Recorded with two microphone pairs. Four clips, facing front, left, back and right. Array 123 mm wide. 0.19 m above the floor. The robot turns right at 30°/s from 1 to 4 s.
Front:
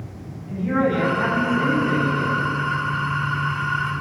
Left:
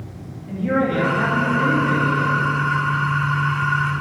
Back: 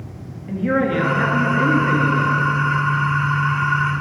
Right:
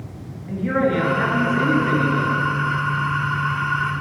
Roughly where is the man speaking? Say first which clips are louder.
Even, back 2 dB; behind.